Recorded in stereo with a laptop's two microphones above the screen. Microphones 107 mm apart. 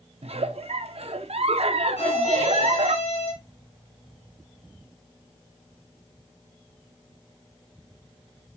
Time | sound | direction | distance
0.2 | a giggle | 70° right (ahead or behind) | 0.8 m
2.0 | a violin | 80° left | 3 m